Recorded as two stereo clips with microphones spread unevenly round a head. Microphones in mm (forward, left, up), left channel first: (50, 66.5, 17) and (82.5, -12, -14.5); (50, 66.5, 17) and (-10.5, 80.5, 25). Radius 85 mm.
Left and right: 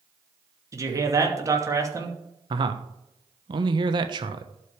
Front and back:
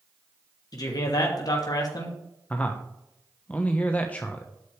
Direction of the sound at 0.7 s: 20° right.